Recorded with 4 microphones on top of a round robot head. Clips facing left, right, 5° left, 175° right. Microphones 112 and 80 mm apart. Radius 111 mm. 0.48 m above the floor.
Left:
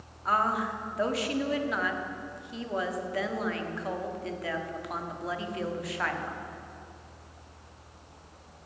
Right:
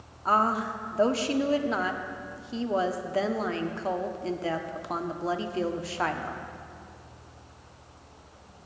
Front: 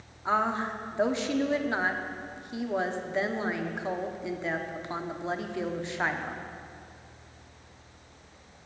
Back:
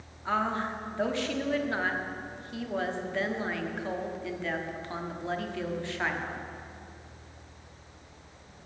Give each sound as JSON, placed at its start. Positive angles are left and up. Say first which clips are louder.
{"t": 0.2, "sound": "a woman speaking", "louder": "right 2 dB, front 2 dB", "azimuth_deg": -50, "distance_m": 0.9}